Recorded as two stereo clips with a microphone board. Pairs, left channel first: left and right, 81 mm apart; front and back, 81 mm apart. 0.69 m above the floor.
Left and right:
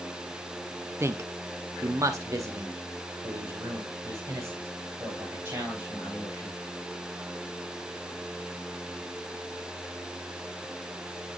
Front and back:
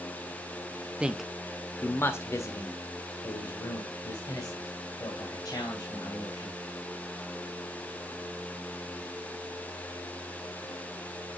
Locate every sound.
1.0 s a man speaking: 115° right, 0.6 m; by 6.6 s 30° right, 3 m